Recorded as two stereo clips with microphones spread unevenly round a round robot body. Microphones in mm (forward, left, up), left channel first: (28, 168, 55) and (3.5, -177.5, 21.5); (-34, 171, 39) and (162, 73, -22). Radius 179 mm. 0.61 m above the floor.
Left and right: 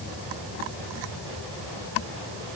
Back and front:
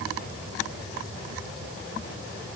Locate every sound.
Only background noise.